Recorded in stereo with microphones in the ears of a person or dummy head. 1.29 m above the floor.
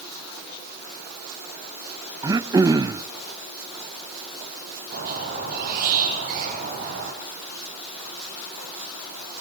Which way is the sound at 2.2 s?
15° right (ahead or behind).